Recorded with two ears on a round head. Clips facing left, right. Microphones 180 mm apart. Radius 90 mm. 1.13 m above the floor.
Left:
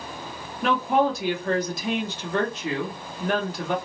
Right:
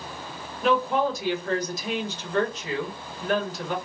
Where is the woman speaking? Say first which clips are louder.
Left 1 dB; 45° left (ahead or behind), 1.0 m.